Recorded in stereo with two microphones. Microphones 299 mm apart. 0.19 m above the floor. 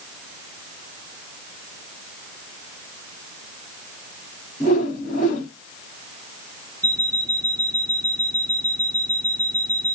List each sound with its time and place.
4.6 s a whoosh: 25° left (ahead or behind), 1.4 m
6.8 s an alarm clock: 10° right (ahead or behind), 1.5 m